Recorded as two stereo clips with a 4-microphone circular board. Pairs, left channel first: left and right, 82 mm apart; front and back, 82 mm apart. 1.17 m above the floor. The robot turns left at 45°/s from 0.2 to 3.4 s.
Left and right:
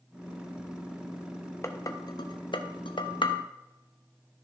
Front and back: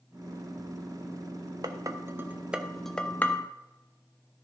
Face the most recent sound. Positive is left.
turn(degrees=60)